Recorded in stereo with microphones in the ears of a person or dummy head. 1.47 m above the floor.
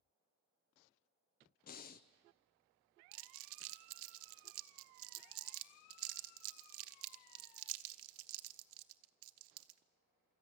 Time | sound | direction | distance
1.7 | breathing | 45° left (ahead or behind) | 0.7 m
3.1 | crumpling | 70° right (ahead or behind) | 0.8 m